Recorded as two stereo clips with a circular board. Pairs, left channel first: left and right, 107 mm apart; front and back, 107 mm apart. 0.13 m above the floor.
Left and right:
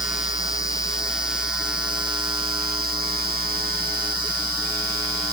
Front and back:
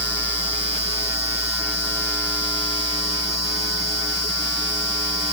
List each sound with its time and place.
Only background noise.